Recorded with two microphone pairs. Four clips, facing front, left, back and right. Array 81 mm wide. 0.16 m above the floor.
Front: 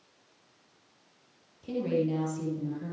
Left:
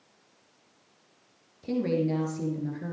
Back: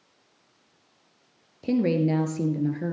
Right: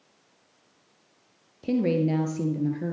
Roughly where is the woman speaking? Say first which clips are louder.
Right 3 dB, back 6 dB; behind right.